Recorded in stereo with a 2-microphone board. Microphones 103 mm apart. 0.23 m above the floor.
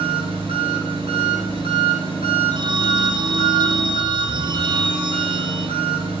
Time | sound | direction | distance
0.0 | an engine running | 65° right (ahead or behind) | 3.5 m
2.5 | a phone ringing | 50° right (ahead or behind) | 0.8 m